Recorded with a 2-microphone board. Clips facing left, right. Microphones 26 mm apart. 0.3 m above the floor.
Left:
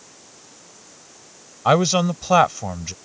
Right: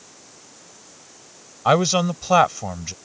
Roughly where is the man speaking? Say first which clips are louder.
Left 1 dB; centre.